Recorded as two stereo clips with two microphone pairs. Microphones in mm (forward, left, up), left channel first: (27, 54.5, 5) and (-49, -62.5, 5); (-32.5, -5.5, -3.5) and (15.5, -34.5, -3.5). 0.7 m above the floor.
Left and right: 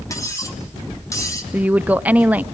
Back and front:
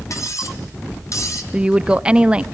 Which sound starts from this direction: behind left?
Cutlery clinking, at 0.1 s.